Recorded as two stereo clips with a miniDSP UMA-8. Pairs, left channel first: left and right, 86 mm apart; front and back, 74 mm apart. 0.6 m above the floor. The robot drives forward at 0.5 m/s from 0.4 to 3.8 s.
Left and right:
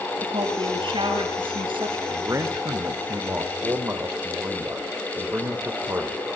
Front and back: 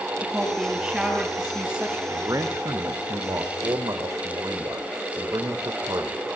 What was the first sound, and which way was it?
A woman speaking, 95° right.